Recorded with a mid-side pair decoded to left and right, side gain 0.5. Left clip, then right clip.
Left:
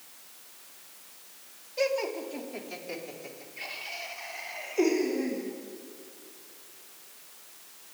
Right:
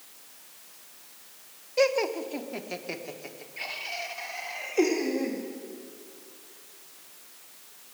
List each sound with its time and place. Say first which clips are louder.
1.8 s laughter: right 4 dB; 50° right, 1.1 m